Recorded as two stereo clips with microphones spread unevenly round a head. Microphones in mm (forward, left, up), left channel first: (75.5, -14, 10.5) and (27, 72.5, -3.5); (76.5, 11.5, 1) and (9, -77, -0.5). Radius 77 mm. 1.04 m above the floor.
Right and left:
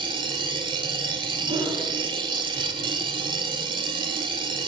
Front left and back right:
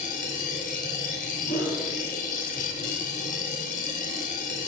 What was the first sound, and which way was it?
A machine running, 80° left.